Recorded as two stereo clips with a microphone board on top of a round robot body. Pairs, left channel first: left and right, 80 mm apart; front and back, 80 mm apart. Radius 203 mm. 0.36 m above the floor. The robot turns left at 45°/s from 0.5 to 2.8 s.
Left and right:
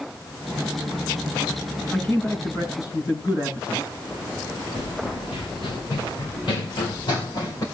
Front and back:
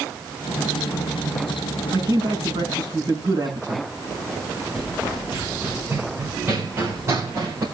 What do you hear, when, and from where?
1.9 s a man speaking: 170° left, 6 m; by 3.9 s 130° left, 6 m
4.8 s running footsteps: 100° left, 3.5 m; by 7.6 s 130° left, 3 m